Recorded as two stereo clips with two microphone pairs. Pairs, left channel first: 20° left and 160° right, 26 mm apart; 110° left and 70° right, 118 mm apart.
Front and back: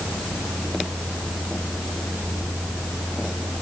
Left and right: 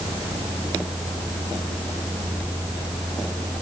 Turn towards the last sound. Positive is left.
No sound to turn to.